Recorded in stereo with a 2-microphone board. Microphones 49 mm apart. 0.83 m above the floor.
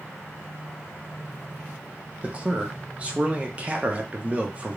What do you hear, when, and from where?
2.2 s a man speaking: 25° right (ahead or behind), 0.6 m